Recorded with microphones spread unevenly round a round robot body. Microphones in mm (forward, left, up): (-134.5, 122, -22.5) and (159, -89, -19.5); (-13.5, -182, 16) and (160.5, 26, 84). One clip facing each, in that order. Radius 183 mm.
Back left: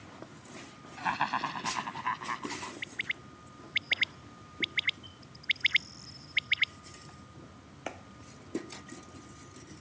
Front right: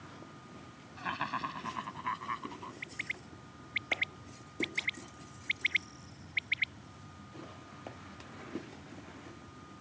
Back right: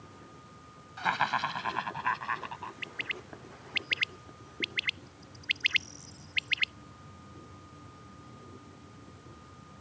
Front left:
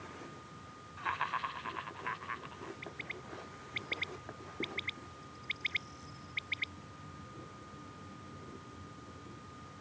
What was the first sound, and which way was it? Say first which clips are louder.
Laughter: back left 4 dB, back right 9 dB; 145° right.